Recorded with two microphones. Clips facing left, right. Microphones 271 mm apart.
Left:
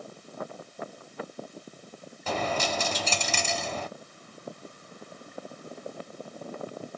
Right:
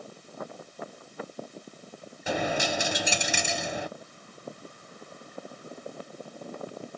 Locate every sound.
2.3 s a dropped coin: 15° right (ahead or behind), 0.9 m